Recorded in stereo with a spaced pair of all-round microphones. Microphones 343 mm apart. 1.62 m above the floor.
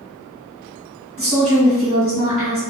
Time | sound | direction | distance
1.2 | a woman speaking | 50° right (ahead or behind) | 1.4 m